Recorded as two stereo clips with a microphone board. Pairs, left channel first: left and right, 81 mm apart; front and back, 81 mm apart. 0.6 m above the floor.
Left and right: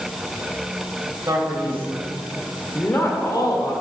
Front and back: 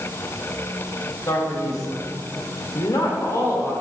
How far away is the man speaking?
About 2.5 m.